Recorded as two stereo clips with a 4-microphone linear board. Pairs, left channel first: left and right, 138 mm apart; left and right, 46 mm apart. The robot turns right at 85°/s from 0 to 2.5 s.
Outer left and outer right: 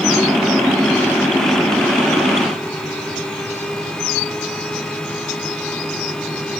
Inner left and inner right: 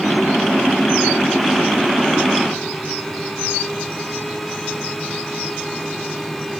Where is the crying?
No crying in this recording.